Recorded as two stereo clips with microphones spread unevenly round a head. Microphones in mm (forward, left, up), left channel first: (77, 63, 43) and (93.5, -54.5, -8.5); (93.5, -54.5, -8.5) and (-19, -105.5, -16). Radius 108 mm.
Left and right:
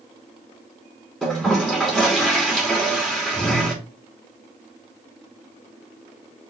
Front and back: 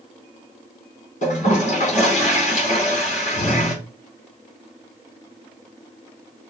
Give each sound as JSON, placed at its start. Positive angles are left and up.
{"t": 1.2, "sound": "a toilet flushing", "azimuth_deg": 15, "distance_m": 4.5}